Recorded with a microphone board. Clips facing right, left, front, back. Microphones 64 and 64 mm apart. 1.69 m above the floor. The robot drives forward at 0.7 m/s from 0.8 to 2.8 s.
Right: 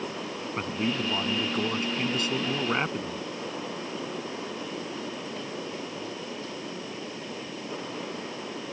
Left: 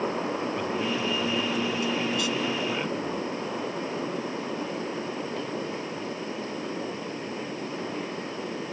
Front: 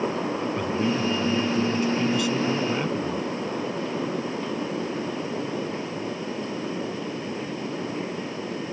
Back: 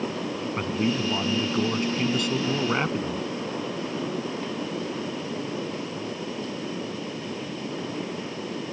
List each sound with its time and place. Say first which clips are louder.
0.6 s a man speaking: left 2 dB, back 1 dB; 135° right; by 3.3 s 140° right